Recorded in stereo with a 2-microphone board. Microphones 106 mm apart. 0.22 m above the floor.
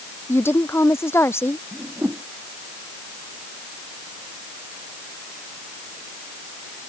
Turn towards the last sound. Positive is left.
turn(degrees=-25)  # may be behind; listen again after turning